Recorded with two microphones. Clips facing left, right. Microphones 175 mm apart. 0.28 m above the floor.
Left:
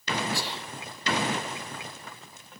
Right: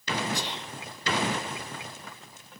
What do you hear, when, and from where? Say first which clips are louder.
0.3 s whispering: even; 20° right (ahead or behind), 1.9 m